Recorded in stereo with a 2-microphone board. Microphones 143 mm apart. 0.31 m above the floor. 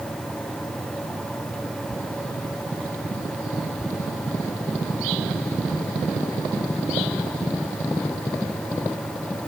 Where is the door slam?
No door slam in this recording.